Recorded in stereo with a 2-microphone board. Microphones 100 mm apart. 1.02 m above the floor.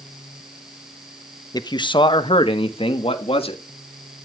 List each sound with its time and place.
1.5 s a man speaking: 45° left (ahead or behind), 0.9 m; by 3.6 s 75° left (ahead or behind), 2 m